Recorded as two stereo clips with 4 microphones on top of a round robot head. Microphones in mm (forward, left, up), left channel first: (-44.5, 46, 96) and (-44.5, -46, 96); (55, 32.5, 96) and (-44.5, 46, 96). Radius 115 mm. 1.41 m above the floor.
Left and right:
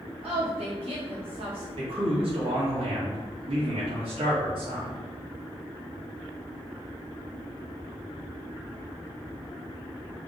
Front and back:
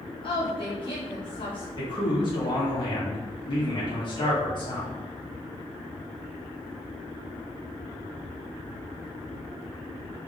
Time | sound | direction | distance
0.2 | a woman speaking | 55° right | 3 m
1.8 | a man speaking | 60° right | 3.5 m